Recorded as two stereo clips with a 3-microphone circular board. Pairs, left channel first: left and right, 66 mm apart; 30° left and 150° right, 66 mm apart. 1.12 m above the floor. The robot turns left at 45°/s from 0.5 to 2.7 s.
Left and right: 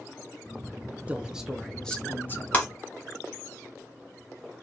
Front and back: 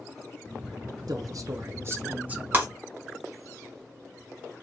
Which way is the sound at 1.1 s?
160° right.